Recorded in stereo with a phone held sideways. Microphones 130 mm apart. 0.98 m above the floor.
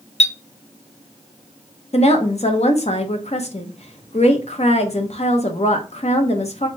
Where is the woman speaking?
55° left (ahead or behind), 0.9 m.